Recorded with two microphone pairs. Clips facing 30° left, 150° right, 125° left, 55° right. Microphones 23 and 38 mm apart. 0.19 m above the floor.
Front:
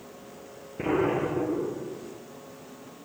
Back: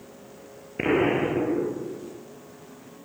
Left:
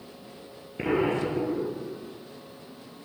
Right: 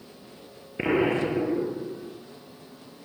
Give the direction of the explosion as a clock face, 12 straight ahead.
4 o'clock.